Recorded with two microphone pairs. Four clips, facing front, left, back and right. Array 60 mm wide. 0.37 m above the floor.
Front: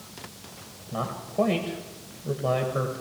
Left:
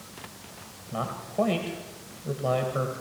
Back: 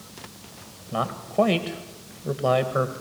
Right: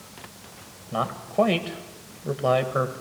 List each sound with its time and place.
0.9 s a man speaking: 125° right, 1.6 m